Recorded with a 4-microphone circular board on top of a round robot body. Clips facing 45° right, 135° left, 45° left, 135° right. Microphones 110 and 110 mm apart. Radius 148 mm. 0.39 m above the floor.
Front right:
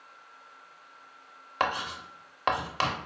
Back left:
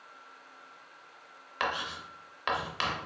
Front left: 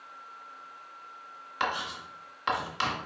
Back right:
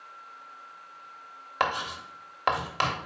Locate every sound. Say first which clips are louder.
1.6 s writing: front right 4 dB, back right 3 dB; 95° right, 0.6 m